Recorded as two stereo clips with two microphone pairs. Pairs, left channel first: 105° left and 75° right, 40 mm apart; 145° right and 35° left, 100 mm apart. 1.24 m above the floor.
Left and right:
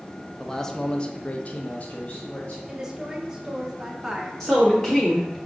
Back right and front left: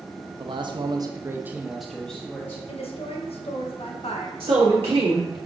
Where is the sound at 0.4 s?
25° left, 0.7 m; by 2.6 s 150° left, 0.9 m.